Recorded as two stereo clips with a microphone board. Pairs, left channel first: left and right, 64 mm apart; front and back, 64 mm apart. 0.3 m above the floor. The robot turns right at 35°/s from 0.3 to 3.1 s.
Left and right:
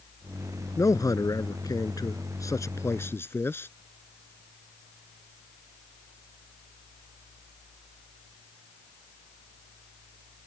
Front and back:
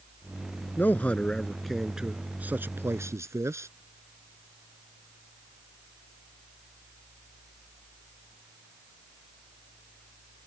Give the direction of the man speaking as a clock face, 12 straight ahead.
10 o'clock.